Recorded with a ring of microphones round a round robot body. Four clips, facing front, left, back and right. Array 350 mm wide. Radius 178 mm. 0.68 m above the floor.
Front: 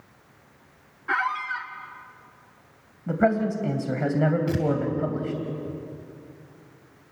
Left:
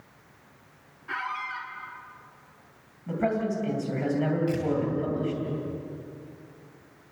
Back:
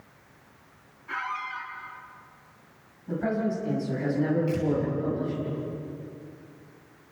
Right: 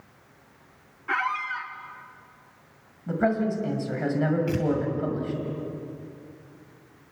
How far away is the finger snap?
I don't hear a finger snap.